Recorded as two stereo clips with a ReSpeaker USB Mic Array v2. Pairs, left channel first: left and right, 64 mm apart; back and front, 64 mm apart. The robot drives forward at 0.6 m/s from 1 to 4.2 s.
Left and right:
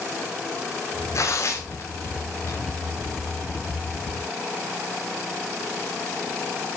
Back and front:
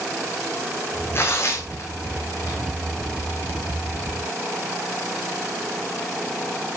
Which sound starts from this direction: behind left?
Tearing paper, at 1.1 s.